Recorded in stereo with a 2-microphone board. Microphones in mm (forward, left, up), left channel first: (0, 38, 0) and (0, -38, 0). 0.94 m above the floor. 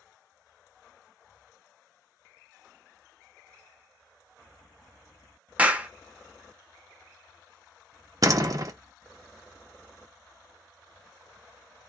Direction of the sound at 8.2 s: 50° right (ahead or behind).